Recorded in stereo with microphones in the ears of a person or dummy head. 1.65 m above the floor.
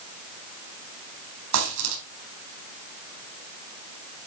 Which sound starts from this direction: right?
A dropped coin, at 1.5 s.